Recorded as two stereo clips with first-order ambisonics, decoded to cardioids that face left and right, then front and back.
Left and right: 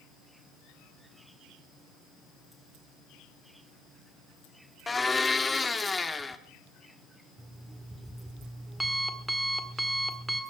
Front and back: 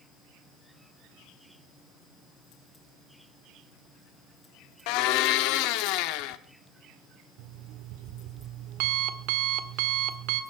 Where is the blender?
10° left, 1.0 m.